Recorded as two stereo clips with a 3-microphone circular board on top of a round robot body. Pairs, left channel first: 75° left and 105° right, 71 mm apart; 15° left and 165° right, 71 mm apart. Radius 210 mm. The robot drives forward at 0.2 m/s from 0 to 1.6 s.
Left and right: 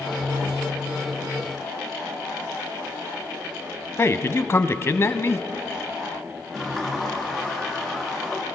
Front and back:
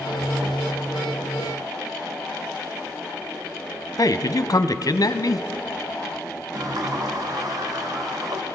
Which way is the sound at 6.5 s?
160° left.